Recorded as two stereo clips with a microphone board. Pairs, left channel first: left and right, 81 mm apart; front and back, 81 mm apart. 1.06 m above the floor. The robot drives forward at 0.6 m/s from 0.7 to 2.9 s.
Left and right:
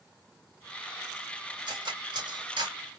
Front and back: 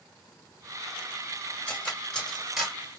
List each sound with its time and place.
1.7 s cutlery clinking: 75° right, 1.6 m; by 2.8 s 95° right, 1.5 m